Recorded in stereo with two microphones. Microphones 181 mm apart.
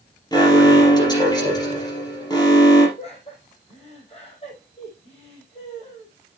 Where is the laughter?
35° left (ahead or behind), 5.5 m.